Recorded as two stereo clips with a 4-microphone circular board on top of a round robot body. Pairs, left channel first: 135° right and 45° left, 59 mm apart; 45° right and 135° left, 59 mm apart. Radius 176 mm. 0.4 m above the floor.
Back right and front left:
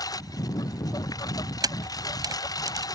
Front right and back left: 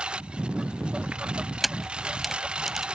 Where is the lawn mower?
150° right.